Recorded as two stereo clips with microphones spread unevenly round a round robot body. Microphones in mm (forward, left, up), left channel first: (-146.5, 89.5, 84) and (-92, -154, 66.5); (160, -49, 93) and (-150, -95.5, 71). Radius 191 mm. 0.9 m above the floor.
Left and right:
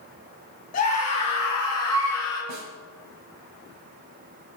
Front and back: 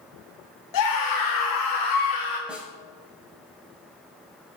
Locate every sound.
0.7 s a scream: 40° left, 2 m; by 2.4 s 20° left, 3.5 m
2.5 s a snare drum: 85° right, 1.9 m